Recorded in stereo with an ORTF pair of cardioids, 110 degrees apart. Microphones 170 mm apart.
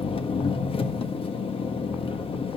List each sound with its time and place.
0.0 s an engine running: 35° left, 1.5 m